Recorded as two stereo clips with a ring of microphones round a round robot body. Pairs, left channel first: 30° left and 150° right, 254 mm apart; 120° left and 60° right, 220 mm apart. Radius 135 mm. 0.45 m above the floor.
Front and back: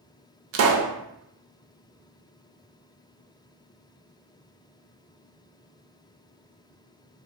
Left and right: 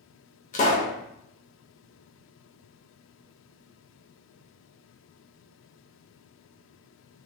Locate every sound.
0.5 s a pop: straight behind, 0.5 m